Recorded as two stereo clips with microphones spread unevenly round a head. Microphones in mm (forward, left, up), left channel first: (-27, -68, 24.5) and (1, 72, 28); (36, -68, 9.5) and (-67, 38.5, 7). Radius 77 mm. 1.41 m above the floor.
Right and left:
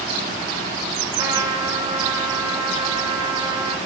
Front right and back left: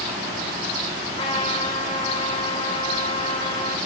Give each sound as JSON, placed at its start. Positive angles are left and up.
{"t": 1.2, "sound": "a trumpet", "azimuth_deg": 15, "distance_m": 3.0}